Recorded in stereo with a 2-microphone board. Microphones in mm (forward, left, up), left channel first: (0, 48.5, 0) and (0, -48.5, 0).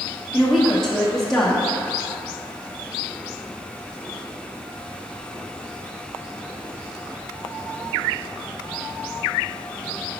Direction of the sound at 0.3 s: 5° left (ahead or behind).